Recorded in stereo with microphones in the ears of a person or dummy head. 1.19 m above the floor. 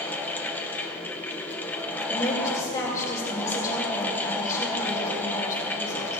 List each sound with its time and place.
0.0 s a fan: 10° left (ahead or behind), 0.9 m
2.1 s a woman speaking: 20° left (ahead or behind), 4.5 m